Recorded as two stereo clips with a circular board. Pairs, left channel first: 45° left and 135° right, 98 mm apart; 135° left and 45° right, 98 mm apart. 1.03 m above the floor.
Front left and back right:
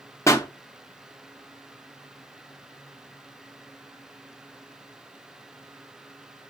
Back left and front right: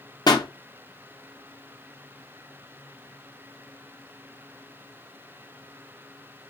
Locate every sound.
0.3 s a pop: 100° left, 0.5 m